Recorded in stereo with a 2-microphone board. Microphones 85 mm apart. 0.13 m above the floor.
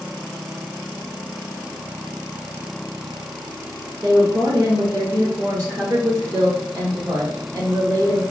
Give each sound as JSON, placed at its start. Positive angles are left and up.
{"t": 4.0, "sound": "a woman speaking", "side_deg": -40, "distance_m": 1.9}